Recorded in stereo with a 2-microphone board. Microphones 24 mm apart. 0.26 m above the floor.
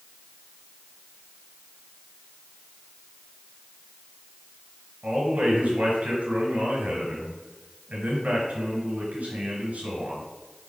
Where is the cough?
No cough in this recording.